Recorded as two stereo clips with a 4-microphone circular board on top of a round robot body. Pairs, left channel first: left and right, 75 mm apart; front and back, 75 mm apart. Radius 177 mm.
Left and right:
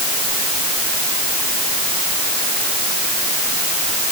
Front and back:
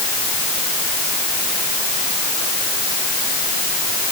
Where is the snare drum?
I don't hear a snare drum.